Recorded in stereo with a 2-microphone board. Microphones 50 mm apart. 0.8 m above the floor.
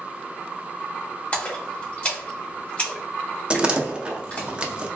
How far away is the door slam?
About 0.5 m.